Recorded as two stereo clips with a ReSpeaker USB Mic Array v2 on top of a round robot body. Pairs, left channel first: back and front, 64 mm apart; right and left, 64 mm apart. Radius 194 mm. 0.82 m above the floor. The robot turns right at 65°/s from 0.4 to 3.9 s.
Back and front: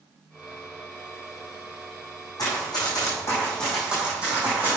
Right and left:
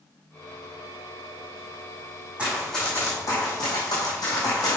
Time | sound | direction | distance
2.4 | running footsteps | 160° left | 3.5 m